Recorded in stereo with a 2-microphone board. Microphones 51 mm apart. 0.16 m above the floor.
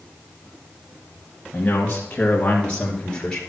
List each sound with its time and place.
1.5 s a man speaking: 30° left (ahead or behind), 1.5 m; by 3.4 s 10° left (ahead or behind), 2 m